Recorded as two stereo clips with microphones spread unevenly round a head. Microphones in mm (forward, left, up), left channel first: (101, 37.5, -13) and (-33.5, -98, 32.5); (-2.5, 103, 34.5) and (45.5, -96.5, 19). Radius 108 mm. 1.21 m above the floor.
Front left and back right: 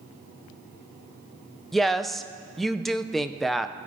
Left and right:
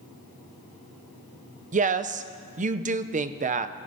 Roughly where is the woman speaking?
Ahead right.